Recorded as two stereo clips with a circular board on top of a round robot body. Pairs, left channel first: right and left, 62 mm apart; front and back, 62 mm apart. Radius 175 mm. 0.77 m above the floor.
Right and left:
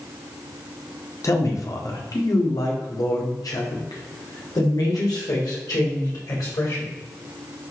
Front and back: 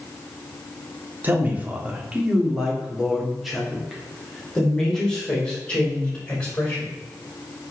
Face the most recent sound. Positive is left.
turn(degrees=-70)